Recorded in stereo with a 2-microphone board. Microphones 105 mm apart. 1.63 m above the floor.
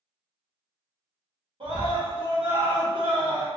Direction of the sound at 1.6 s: 55° right (ahead or behind).